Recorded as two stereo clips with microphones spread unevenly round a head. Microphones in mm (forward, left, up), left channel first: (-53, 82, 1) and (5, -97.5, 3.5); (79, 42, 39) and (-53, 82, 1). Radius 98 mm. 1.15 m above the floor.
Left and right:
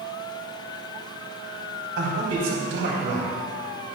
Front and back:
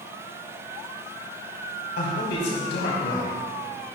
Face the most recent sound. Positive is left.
turn(degrees=-40)